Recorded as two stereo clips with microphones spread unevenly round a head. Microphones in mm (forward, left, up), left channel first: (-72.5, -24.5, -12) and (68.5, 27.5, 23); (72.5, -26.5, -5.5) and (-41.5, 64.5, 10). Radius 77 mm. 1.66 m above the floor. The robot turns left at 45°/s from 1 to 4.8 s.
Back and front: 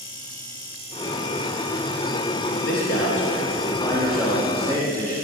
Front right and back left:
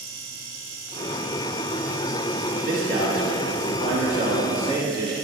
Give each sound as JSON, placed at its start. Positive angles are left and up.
{"t": 2.5, "sound": "a man speaking", "azimuth_deg": -175, "distance_m": 4.0}